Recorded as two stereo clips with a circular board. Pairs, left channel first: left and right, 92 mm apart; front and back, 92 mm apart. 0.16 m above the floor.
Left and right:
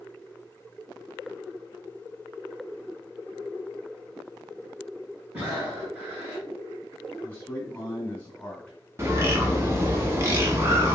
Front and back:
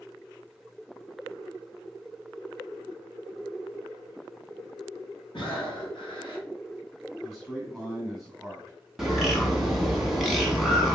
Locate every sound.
5.3 s breathing: 20° right, 1.8 m
7.2 s a man speaking: 90° left, 1.3 m
9.0 s a bird: 95° right, 0.8 m